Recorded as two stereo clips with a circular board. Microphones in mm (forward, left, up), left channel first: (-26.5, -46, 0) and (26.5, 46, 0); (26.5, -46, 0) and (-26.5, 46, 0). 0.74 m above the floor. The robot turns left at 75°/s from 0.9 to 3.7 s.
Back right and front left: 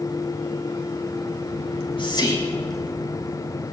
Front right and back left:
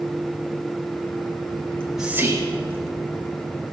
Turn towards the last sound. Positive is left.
turn(degrees=75)